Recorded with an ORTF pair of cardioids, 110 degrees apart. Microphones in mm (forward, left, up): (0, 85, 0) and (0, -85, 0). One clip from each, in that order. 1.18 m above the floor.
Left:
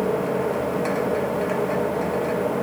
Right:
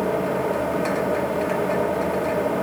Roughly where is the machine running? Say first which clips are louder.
Even; ahead.